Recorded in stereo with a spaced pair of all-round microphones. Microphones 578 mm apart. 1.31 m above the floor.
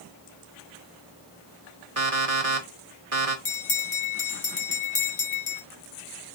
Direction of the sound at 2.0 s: 70° right (ahead or behind).